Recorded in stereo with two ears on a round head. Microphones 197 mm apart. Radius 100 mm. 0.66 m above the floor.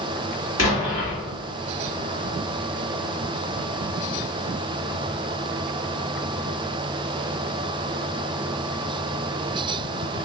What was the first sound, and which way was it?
An explosion, 65° left (ahead or behind).